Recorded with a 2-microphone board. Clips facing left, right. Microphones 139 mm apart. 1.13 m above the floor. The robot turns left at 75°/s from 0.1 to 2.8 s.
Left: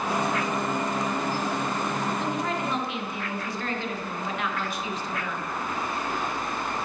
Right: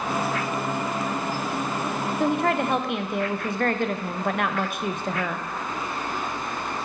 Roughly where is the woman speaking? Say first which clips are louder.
Right 6 dB; ahead right.